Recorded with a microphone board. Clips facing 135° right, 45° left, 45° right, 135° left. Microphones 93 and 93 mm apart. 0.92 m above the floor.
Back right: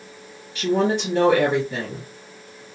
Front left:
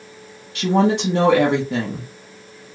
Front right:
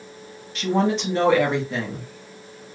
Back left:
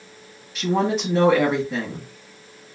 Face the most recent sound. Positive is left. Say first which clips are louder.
# front left 3 dB, even
turn(degrees=50)